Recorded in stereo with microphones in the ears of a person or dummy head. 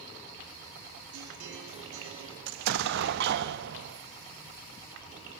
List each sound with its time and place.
1.1 s a guitar: 65° right (ahead or behind), 9.5 m
2.5 s an explosion: 65° right (ahead or behind), 1.2 m